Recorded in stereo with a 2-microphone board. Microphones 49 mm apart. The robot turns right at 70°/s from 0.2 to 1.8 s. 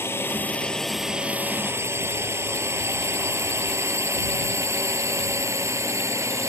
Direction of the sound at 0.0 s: 55° left (ahead or behind).